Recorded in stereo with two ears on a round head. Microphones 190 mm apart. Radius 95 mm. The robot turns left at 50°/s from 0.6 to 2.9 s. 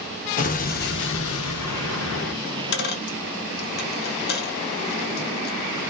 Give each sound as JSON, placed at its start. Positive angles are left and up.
{"t": 0.4, "sound": "an explosion", "azimuth_deg": 140, "distance_m": 0.6}
{"t": 2.4, "sound": "a dropped coin", "side_deg": 70, "distance_m": 0.6}